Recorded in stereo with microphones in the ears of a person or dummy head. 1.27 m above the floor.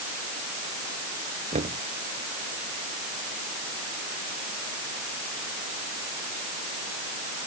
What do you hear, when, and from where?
1.5 s knocking: 35° right (ahead or behind)